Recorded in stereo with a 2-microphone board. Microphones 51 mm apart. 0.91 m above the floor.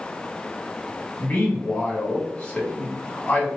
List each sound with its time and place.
1.2 s a man speaking: 30° left (ahead or behind), 1.6 m